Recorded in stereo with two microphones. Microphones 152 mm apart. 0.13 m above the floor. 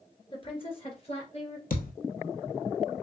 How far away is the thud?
About 1.1 m.